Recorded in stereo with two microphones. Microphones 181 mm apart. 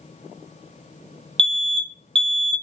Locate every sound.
1.4 s an alarm: 30° right (ahead or behind), 0.6 m